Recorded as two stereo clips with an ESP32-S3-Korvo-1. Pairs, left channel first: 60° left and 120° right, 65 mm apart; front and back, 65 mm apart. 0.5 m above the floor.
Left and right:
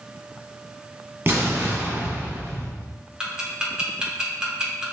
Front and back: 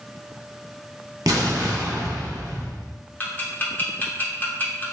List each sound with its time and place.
1.3 s an explosion: 175° right, 0.9 m
3.2 s ticking: 50° right, 0.9 m